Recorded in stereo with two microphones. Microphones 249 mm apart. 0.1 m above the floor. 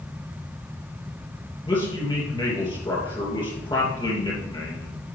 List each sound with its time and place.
1.6 s a man speaking: 20° left (ahead or behind), 2.5 m